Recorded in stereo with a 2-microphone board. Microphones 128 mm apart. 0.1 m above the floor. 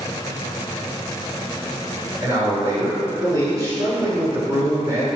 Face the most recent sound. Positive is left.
turn(degrees=-20)  # may be behind; listen again after turning